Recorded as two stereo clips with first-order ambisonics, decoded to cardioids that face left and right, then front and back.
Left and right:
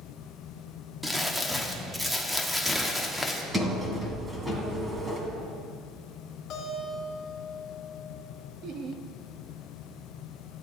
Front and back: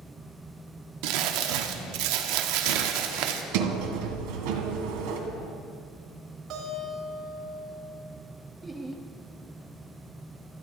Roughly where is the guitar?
Behind left.